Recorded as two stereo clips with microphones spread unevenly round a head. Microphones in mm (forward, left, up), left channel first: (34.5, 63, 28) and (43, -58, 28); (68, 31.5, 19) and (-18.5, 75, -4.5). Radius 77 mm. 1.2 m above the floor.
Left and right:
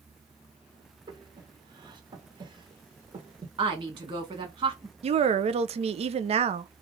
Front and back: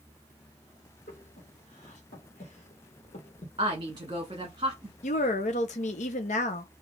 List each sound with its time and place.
1.1 s breathing: 35° right, 1.2 m
3.6 s a woman speaking: 145° right, 1.2 m
5.0 s a woman speaking: 50° right, 0.5 m